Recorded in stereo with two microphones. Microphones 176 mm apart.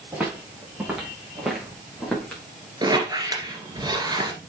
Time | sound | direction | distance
0.1 | footsteps | 10° right (ahead or behind) | 5 m
2.8 | a squeak | 20° right (ahead or behind) | 1.9 m